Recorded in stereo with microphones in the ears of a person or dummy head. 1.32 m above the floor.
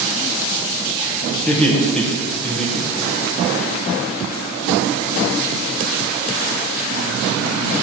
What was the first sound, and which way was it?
Laughter, 10° left (ahead or behind).